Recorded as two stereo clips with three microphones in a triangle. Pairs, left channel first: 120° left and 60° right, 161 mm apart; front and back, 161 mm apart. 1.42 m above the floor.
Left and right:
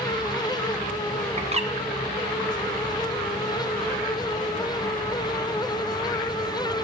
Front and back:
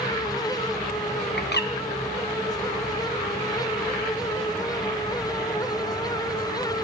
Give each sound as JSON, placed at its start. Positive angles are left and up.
{"t": 1.4, "sound": "a bird", "azimuth_deg": -5, "distance_m": 1.4}